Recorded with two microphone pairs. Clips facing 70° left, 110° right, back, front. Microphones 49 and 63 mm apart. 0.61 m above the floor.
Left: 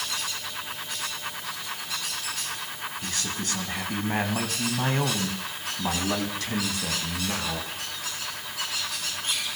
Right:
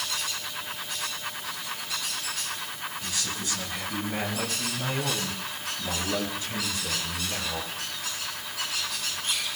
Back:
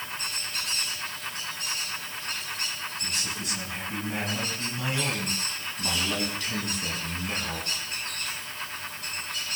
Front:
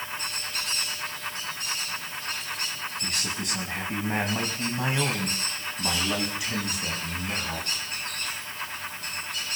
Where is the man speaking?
25° left, 4.5 m; by 7.7 s 90° left, 6 m.